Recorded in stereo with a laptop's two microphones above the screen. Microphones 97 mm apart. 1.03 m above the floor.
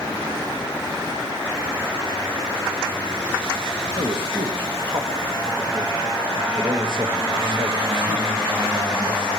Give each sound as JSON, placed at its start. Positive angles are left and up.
{"t": 4.0, "sound": "a man speaking", "side_deg": -55, "distance_m": 1.1}